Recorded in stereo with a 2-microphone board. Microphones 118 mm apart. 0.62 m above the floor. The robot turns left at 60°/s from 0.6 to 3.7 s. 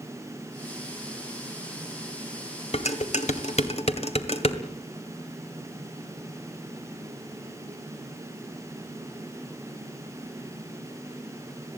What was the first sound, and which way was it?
Dishes clattering, 60° left (ahead or behind).